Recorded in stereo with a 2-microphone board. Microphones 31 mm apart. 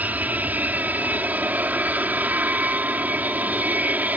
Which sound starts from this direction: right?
An aircraft, at 0.0 s.